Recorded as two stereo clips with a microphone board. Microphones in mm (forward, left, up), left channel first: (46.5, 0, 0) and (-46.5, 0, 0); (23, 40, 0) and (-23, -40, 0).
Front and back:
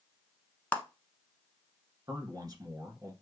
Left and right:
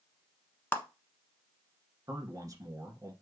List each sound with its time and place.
0.7 s a clap: 45° left, 1.0 m
2.1 s a man speaking: 150° right, 1.6 m